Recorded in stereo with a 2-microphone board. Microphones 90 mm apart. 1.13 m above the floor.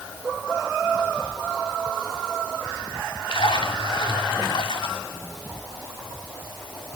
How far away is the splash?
About 2.5 m.